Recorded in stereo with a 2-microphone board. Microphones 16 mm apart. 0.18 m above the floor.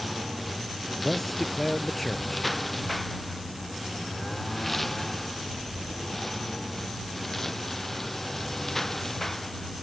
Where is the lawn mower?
Centre (ahead or behind); by 9.8 s 20° left (ahead or behind).